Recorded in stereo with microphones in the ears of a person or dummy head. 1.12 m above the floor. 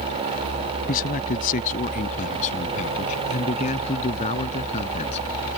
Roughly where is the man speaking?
Left.